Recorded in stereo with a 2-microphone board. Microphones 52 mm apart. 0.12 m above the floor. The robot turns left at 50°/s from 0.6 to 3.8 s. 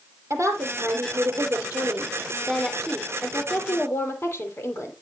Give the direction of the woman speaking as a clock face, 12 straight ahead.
2 o'clock.